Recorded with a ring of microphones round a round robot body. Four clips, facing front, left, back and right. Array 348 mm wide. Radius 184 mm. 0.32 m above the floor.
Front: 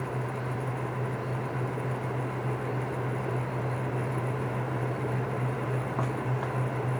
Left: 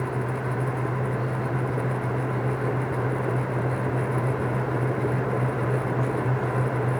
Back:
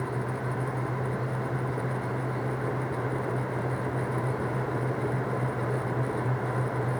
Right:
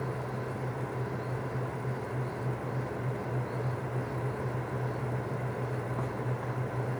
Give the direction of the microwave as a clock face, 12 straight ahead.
No microwave in this recording.